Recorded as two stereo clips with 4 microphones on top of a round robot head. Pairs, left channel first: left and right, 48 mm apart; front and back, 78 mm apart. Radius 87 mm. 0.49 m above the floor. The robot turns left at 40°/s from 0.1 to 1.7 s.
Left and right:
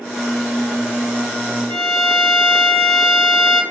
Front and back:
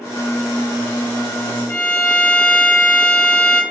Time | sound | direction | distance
1.7 | a violin | 60° left | 1.5 m